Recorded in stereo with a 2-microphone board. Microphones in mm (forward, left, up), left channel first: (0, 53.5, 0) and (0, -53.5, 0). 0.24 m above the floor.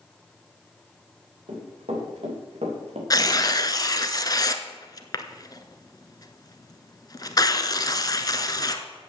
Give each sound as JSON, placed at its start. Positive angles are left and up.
{"t": 1.5, "sound": "running footsteps", "side_deg": -65, "distance_m": 6.0}
{"t": 3.1, "sound": "tearing paper", "side_deg": 35, "distance_m": 0.8}